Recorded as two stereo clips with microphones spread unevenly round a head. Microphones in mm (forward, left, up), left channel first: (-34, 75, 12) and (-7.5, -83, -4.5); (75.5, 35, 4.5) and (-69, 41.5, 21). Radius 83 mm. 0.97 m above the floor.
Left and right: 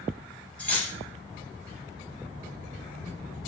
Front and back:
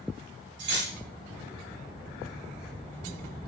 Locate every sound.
0.6 s cutlery clinking: straight behind, 0.6 m